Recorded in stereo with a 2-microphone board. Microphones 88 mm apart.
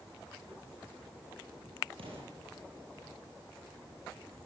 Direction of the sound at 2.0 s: 85° right.